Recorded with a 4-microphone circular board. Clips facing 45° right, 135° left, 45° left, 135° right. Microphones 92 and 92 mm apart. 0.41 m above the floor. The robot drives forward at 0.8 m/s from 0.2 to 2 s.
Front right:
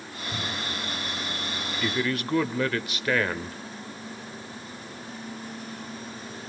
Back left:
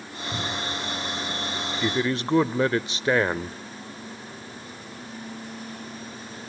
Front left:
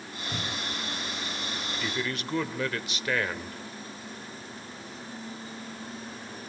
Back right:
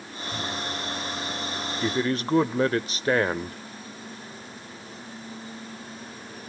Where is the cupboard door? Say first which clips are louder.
Back left 3 dB, back right 4 dB; 70° left, 1.9 m; by 0.8 s 85° left, 1.8 m.